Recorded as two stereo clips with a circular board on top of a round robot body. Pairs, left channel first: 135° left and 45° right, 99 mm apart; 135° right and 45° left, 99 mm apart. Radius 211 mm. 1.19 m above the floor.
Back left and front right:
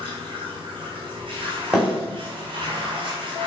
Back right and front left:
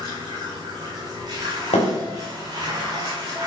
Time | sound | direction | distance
0.0 | running water | 5° right | 1.9 m
1.7 | a thud | 130° right | 3 m